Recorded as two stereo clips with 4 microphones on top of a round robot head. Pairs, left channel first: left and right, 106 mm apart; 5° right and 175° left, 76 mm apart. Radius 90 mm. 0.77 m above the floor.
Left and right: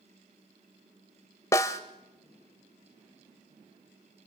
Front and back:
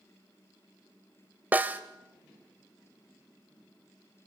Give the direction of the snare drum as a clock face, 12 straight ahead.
8 o'clock.